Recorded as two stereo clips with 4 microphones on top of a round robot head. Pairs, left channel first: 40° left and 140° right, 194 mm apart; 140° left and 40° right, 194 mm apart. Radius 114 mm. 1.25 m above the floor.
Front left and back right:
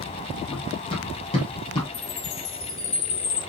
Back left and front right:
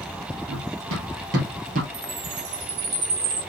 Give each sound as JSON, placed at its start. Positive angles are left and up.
{"t": 0.5, "sound": "running footsteps", "azimuth_deg": -25, "distance_m": 2.0}
{"t": 1.9, "sound": "a chime", "azimuth_deg": 0, "distance_m": 2.5}